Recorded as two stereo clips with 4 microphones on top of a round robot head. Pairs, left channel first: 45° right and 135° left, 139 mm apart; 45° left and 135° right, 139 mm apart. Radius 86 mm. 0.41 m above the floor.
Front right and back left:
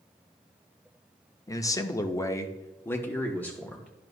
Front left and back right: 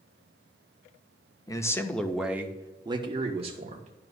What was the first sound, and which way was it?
A man speaking, 5° left.